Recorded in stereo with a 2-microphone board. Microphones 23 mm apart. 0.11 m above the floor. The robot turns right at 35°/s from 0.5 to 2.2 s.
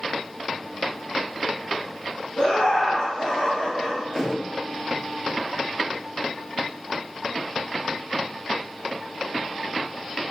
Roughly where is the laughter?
Left.